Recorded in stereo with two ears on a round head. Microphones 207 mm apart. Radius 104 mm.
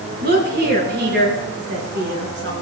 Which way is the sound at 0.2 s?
50° right (ahead or behind).